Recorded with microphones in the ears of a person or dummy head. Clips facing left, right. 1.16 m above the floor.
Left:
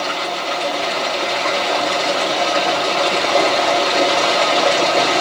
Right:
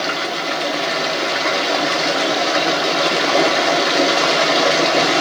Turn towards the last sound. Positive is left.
turn(degrees=-15)  # may be behind; listen again after turning